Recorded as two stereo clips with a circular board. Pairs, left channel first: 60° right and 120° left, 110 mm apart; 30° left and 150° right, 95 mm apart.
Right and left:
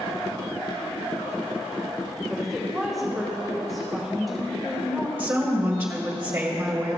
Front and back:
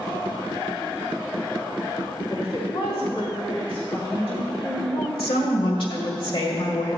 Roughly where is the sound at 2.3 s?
Ahead left.